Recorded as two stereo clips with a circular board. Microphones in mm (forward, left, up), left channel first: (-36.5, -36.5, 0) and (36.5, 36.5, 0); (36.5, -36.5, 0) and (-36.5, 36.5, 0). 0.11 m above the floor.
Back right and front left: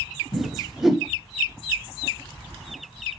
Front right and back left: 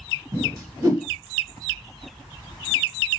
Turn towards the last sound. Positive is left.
turn(degrees=135)